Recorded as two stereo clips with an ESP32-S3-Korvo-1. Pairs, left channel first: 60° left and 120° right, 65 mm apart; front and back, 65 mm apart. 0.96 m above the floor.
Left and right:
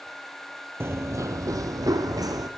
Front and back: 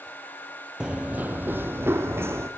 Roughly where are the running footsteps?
Right.